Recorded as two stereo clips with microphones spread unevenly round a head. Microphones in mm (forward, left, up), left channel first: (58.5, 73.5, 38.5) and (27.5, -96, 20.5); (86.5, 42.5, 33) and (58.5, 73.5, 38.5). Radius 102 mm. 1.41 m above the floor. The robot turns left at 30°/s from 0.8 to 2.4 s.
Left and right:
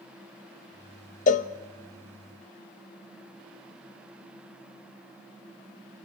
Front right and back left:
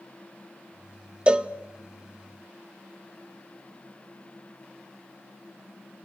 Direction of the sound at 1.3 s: 85° left.